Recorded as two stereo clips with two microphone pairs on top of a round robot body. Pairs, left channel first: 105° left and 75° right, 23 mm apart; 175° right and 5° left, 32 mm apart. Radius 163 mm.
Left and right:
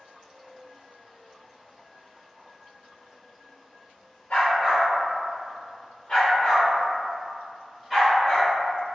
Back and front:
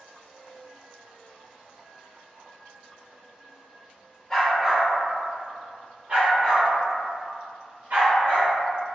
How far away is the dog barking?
About 1.1 m.